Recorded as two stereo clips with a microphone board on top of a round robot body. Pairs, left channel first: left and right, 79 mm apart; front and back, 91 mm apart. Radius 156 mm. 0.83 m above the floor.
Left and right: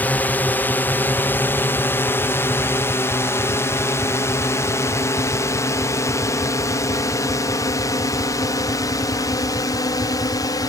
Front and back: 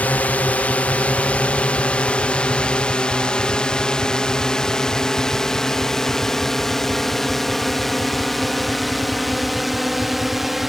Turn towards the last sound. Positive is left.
turn(degrees=90)